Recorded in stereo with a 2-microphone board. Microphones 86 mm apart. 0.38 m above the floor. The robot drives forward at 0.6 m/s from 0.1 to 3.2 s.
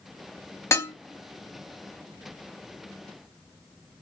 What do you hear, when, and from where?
0.7 s dishes clattering: 30° left (ahead or behind), 0.7 m